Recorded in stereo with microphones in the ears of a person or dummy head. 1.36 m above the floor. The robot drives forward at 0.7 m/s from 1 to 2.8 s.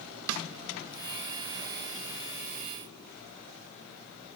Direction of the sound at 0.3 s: 75° right (ahead or behind).